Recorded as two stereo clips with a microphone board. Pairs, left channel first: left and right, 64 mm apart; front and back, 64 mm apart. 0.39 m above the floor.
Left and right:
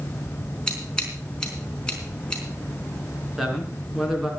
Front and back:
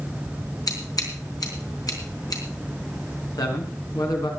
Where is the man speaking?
5° right, 4.5 m.